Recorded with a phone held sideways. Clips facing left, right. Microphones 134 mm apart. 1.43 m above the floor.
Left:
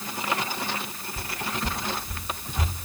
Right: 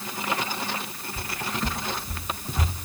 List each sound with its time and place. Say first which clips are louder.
1.2 s footsteps: right 1 dB; 15° right (ahead or behind), 1.4 m; by 2.7 s 40° right (ahead or behind), 1.7 m